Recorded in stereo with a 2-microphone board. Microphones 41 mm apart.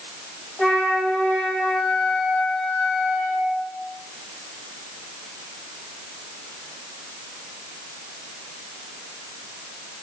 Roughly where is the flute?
Centre.